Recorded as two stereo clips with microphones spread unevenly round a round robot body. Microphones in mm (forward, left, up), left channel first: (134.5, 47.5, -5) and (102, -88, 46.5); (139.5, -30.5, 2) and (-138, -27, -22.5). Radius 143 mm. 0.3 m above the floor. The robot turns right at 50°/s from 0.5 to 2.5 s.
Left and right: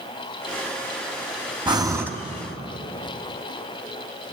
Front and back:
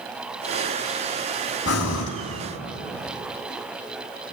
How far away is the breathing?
About 2.5 m.